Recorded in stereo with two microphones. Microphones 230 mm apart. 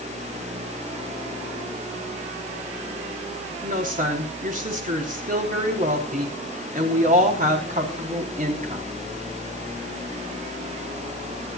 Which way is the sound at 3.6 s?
35° right (ahead or behind).